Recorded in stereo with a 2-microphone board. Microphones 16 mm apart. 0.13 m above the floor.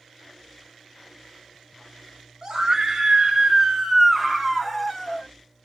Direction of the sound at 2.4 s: 40° right (ahead or behind).